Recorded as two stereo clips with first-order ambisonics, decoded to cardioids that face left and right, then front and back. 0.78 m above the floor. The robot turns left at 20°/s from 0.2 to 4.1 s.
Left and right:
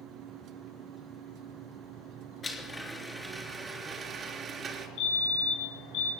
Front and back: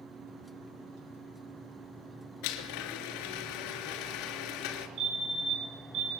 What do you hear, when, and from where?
2.4 s a blender: 15° left, 3 m; by 4.9 s 20° right, 3 m
5.0 s a fire alarm: 125° left, 6.5 m